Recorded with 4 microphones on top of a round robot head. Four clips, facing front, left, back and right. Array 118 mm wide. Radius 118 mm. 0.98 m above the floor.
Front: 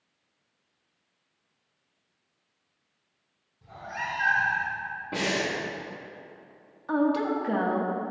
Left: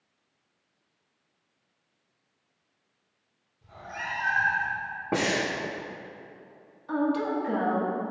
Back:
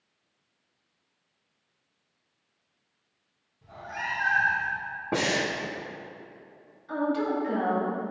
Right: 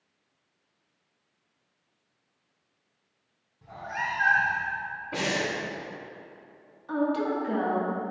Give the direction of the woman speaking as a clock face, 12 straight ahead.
12 o'clock.